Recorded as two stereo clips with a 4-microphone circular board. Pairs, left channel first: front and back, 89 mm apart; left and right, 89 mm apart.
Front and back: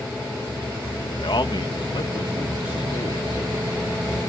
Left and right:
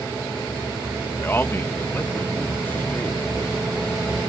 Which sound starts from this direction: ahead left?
A man speaking, at 1.2 s.